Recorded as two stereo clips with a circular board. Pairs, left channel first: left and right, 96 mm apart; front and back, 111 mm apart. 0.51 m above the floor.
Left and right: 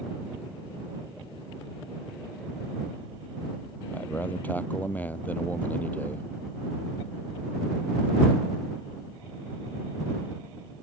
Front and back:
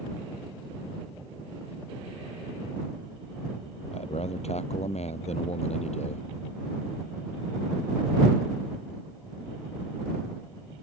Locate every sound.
3.9 s a man speaking: 15° left